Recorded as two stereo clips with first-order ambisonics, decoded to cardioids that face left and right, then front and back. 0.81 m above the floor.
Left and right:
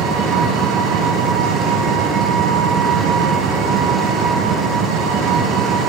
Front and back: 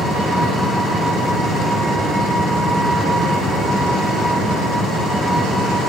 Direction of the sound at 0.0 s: 90° right.